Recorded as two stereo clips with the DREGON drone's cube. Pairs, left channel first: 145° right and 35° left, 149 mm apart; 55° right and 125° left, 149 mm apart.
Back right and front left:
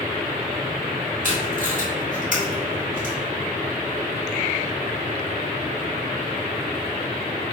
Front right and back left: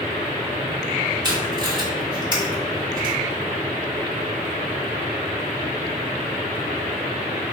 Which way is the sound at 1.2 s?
65° left.